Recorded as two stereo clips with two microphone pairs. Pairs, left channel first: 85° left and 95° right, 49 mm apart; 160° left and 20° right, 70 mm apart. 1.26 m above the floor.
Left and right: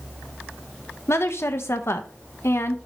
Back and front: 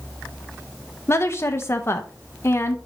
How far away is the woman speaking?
About 1.1 m.